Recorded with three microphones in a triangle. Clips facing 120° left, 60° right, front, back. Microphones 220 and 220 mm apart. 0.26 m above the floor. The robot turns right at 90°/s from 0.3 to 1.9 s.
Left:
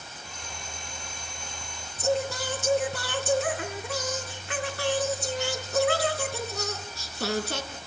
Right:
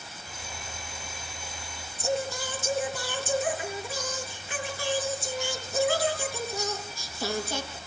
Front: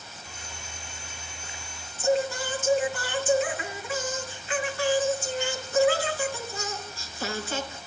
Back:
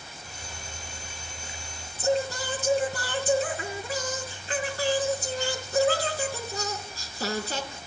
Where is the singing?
130° left, 4 m.